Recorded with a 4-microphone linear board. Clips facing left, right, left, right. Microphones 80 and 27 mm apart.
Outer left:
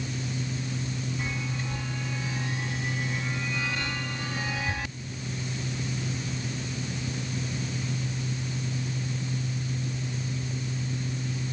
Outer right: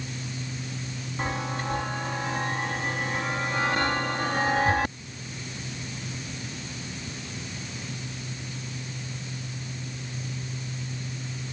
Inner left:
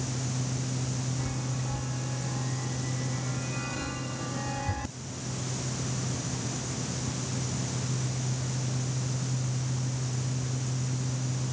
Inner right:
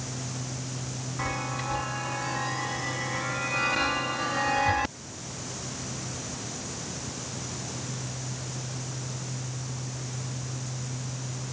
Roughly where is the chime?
Right.